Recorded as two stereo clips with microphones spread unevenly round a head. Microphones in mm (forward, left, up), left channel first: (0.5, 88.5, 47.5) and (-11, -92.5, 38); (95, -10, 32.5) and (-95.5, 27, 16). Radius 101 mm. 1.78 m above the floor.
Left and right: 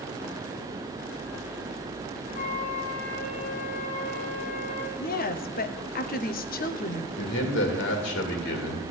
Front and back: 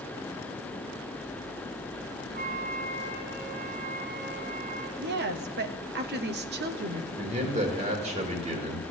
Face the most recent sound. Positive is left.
turn(degrees=110)